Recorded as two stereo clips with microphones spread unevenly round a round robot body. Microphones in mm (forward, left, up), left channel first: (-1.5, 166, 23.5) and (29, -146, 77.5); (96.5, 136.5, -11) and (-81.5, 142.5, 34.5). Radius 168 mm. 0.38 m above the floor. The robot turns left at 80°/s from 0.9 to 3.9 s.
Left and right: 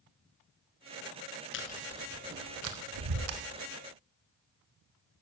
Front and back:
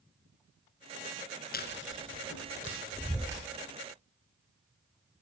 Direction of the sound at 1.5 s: 40° left.